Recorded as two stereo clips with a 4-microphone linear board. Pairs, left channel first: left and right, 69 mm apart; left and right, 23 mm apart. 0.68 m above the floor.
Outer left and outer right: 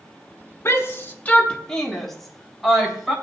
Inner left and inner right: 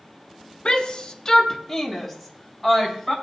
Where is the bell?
I don't hear a bell.